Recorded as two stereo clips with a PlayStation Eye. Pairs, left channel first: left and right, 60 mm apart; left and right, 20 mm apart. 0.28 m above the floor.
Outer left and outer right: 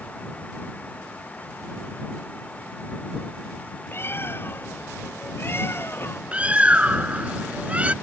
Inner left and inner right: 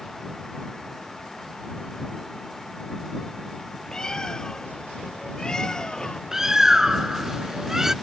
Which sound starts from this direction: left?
A bird, at 3.9 s.